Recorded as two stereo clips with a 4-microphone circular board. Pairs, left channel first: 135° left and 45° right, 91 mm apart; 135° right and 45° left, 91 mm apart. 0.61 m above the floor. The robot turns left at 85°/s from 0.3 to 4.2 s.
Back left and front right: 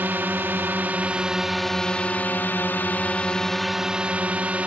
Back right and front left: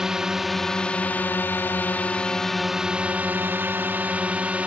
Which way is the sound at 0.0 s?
30° right.